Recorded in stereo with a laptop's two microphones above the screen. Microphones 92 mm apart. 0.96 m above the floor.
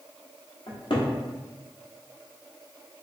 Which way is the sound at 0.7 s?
65° left (ahead or behind).